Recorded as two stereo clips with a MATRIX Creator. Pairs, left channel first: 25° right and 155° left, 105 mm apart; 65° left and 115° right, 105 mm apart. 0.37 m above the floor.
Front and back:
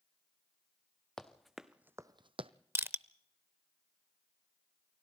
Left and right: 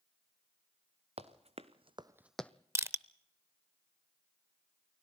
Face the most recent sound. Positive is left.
turn(degrees=-155)